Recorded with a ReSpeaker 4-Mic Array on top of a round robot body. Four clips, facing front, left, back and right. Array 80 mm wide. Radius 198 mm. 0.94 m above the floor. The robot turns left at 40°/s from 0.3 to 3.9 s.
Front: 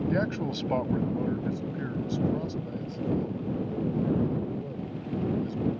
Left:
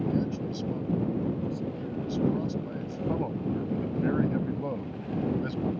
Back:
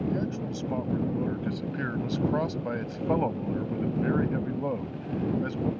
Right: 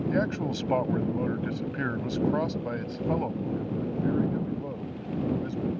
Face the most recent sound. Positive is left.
turn(degrees=160)